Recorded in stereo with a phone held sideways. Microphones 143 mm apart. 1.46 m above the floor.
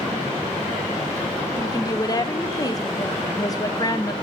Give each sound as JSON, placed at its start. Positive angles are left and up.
{"t": 1.6, "sound": "a woman speaking", "side_deg": 25, "distance_m": 0.6}